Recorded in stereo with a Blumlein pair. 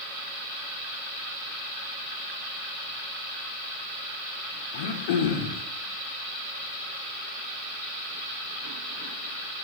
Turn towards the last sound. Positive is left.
turn(degrees=50)